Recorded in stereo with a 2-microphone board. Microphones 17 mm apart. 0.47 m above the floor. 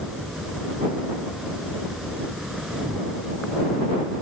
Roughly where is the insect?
Centre.